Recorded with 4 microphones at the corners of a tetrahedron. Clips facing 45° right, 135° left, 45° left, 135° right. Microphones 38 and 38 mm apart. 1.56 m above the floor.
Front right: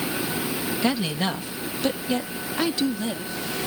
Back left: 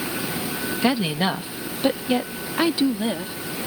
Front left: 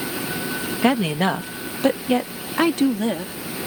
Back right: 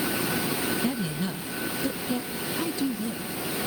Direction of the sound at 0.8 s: 60° left.